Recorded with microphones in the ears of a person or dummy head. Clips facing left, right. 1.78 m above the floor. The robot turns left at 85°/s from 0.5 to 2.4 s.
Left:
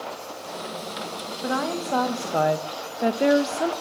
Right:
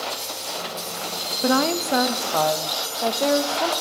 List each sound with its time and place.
1.4 s a woman speaking: 115° right, 0.6 m; by 3.7 s 165° left, 0.6 m